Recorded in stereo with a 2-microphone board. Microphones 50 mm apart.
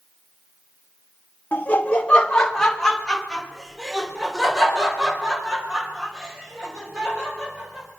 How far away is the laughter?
About 1.4 m.